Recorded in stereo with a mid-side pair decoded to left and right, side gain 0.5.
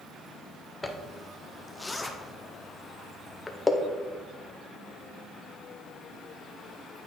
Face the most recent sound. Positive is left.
turn(degrees=15)